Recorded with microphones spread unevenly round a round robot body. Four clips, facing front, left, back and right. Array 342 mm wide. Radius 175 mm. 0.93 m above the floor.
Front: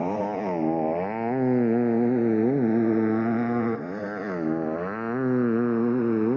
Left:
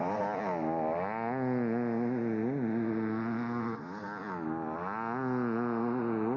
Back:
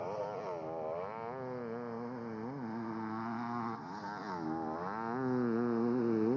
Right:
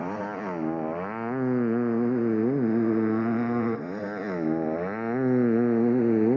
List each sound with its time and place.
0.0 s a motorcycle: 20° right; by 6.4 s 55° right